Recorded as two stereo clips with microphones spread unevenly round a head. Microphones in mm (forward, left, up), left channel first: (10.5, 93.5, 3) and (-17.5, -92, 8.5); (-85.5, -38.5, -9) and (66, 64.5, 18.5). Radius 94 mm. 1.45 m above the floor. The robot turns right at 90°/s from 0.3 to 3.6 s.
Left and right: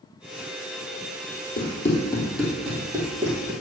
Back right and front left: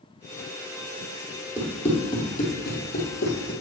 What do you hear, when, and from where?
1.6 s running footsteps: 110° left, 2 m; by 3.5 s 120° right, 2 m